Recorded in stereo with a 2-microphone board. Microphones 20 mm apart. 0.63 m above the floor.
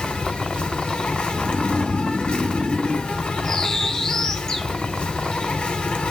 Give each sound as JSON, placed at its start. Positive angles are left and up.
{"t": 0.0, "sound": "an insect", "side_deg": 85, "distance_m": 1.1}
{"t": 1.3, "sound": "snoring", "side_deg": -45, "distance_m": 0.7}
{"t": 3.4, "sound": "a bird", "side_deg": 30, "distance_m": 0.9}